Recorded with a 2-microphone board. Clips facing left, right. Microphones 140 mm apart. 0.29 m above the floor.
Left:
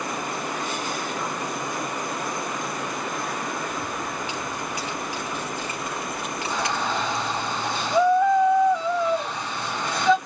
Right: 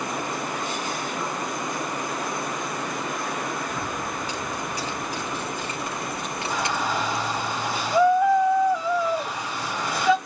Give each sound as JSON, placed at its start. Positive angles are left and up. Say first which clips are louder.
{"t": 3.7, "sound": "keys jangling", "louder": "even", "side_deg": -40, "distance_m": 4.0}
{"t": 6.5, "sound": "a shout", "louder": "even", "side_deg": -5, "distance_m": 1.5}